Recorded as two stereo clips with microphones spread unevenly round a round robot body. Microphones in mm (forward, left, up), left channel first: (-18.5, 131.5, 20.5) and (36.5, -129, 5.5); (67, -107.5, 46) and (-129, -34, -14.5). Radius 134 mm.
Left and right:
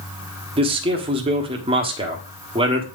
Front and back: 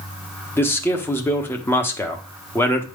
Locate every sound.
0.6 s a man speaking: 120° right, 1.2 m